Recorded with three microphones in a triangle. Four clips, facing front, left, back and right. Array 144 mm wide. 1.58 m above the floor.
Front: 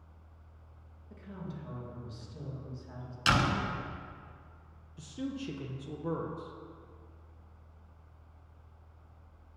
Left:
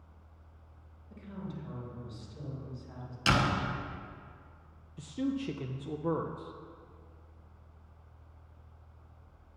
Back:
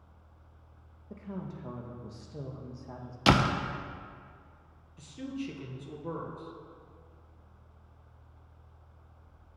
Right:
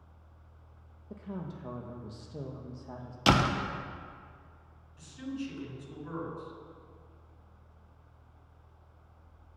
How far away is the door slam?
About 0.9 m.